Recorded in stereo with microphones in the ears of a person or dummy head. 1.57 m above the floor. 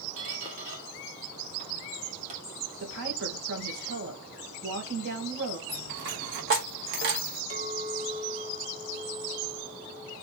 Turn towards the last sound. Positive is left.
turn(degrees=-55)  # may be behind; listen again after turning